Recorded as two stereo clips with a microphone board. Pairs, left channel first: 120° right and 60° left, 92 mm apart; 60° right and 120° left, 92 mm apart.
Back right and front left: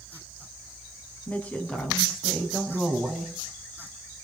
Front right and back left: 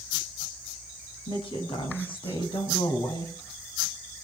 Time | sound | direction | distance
1.3 | a woman speaking | 50° right | 5.5 m